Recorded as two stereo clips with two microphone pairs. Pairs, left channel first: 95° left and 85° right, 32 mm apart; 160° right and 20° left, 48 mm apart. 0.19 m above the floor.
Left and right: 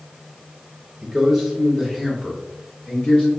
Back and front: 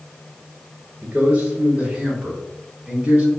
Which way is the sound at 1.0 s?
5° right.